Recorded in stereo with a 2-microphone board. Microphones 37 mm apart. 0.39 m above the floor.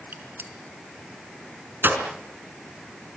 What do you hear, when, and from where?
0.1 s a gunshot: 65° right (ahead or behind), 4 m